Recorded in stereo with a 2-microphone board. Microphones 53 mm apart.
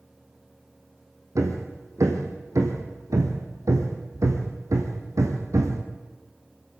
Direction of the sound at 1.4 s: 75° right (ahead or behind).